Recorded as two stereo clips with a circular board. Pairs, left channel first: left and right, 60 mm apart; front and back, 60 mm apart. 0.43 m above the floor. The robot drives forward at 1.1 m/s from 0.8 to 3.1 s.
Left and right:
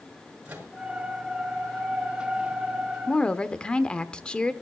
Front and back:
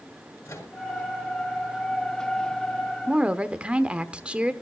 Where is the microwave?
20° right, 6 m.